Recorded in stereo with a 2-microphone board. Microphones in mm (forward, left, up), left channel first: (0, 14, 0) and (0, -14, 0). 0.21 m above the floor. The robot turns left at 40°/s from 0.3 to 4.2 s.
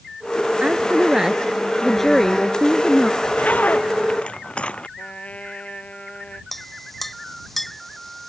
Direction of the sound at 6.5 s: 10° left (ahead or behind).